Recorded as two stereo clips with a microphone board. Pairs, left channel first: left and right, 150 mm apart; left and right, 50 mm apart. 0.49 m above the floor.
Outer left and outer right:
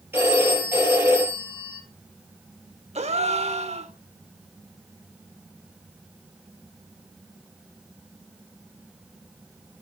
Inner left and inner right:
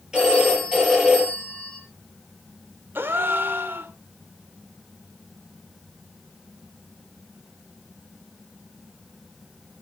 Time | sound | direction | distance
0.1 | a phone ringing | 15° right (ahead or behind) | 6.5 m
3.0 | a gasp | 50° right (ahead or behind) | 1.0 m